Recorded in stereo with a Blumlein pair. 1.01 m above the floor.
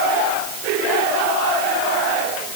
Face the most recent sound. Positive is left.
No sound to turn to.